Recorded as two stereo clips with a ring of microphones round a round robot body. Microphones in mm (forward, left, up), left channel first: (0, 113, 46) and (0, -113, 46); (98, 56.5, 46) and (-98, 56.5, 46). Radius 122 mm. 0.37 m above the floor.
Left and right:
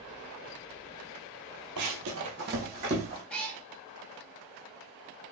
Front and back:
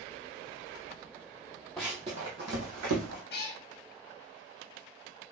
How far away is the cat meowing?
About 0.6 m.